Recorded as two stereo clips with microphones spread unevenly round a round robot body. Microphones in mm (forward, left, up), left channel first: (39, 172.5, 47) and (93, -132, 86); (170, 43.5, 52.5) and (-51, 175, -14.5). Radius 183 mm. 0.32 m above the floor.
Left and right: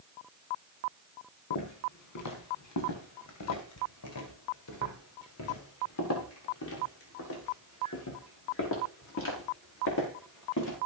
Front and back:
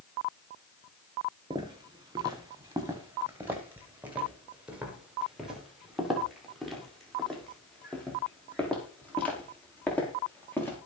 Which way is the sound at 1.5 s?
75° left.